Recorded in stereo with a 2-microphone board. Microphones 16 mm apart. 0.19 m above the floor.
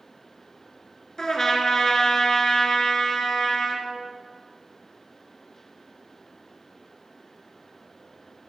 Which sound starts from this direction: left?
A trumpet, at 1.2 s.